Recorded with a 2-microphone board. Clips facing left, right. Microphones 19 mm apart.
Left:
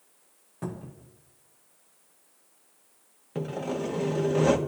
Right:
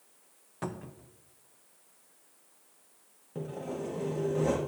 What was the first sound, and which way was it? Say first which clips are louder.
A cupboard door: left 1 dB; 30° right (ahead or behind).